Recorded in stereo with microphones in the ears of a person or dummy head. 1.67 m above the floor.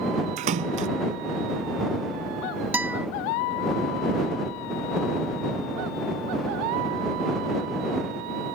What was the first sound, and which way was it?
A splash, 40° right (ahead or behind).